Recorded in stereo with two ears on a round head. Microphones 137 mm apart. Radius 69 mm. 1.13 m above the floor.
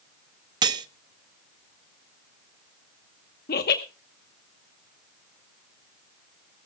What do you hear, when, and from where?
0.6 s cutlery clinking: 30° right (ahead or behind), 0.7 m
3.5 s laughter: 65° left (ahead or behind), 1.0 m